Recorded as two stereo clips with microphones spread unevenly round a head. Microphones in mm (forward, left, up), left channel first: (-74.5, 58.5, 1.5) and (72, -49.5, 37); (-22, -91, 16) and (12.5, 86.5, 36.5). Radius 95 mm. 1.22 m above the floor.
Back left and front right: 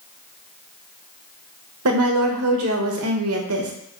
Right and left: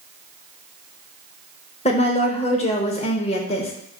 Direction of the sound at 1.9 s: 40° right.